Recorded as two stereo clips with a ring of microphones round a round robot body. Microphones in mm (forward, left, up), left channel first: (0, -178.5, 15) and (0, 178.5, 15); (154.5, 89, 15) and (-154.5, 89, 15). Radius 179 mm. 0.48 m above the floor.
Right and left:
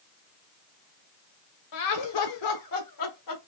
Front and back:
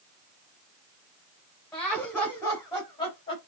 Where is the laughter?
85° right, 2.5 m; by 3.4 s 70° right, 2.0 m.